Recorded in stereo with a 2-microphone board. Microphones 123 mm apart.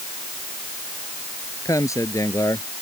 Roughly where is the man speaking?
Left.